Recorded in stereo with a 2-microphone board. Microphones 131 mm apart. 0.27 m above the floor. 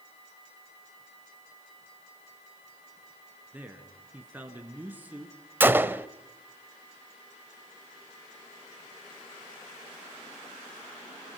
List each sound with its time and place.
3.5 s a man speaking: 10° right (ahead or behind), 3.5 m
5.6 s a gunshot: 15° right (ahead or behind), 0.7 m